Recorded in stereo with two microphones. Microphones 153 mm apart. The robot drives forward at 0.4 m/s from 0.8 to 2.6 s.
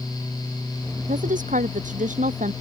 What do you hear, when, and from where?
1.0 s a woman speaking: 60° right (ahead or behind); by 2.5 s 55° right (ahead or behind)